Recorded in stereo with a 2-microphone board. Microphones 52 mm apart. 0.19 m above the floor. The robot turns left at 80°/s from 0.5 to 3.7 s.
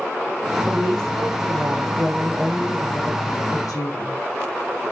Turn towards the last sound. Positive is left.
turn(degrees=90)